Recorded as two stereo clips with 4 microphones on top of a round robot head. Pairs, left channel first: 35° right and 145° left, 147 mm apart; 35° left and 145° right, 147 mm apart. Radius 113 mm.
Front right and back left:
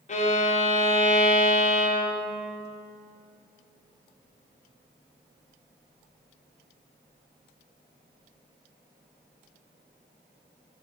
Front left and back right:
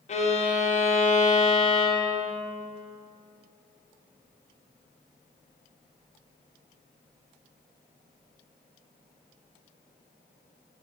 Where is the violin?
Straight ahead, 0.7 m.